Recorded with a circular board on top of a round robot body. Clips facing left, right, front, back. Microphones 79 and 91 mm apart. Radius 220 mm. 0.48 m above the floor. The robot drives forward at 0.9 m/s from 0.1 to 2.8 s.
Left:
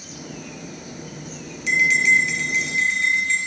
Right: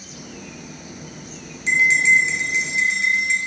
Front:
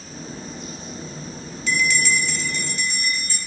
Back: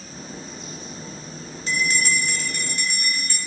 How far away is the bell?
About 1.5 m.